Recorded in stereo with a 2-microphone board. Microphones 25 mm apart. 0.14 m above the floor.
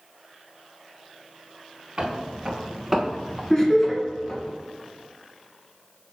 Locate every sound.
2.0 s footsteps: 20° right (ahead or behind), 2.0 m; by 4.5 s 40° left (ahead or behind), 1.8 m
3.5 s laughter: 25° left (ahead or behind), 1.5 m